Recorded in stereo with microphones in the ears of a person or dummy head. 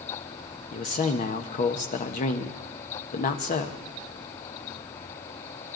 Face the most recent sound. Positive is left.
turn(degrees=45)  # may be behind; listen again after turning